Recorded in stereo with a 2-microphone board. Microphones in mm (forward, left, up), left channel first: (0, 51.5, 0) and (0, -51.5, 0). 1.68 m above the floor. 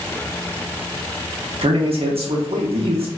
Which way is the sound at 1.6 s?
70° right (ahead or behind).